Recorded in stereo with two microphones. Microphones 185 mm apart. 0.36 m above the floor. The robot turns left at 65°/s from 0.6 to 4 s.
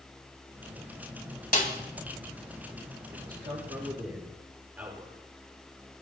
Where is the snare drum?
50° left (ahead or behind), 2 m; by 1.7 s 45° left (ahead or behind), 2 m.